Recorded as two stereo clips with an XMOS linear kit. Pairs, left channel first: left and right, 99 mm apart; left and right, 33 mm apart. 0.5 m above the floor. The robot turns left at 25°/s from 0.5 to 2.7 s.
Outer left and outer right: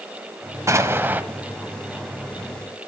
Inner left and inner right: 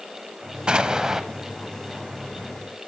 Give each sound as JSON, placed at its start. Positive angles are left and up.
{"t": 0.7, "sound": "an explosion", "side_deg": -30, "distance_m": 0.7}